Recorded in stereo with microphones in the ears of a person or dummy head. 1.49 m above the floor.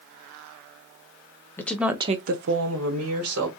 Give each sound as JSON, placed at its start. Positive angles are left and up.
{"t": 1.6, "sound": "a woman speaking", "side_deg": 15, "distance_m": 0.7}